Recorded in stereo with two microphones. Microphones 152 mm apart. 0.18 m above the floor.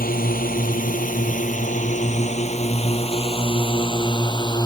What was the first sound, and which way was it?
A drone, 70° left (ahead or behind).